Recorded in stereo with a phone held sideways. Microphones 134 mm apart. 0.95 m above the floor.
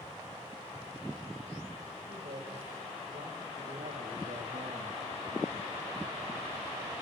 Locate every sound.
2.1 s a man speaking: 75° right (ahead or behind), 4.5 m; by 5.0 s 50° right (ahead or behind), 0.7 m